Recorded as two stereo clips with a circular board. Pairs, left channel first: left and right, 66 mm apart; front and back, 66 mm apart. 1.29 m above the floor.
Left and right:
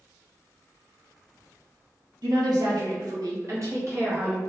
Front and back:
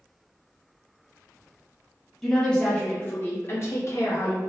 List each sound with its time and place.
2.2 s a woman speaking: 85° right, 1.4 m; by 4.4 s 35° right, 1.8 m